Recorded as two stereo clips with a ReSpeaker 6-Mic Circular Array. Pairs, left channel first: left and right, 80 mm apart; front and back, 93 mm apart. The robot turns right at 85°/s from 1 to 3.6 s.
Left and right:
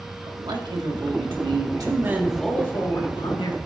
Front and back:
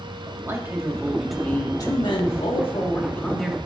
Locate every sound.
0.2 s a man speaking: 115° right, 1.6 m; by 3.6 s 100° left, 1.6 m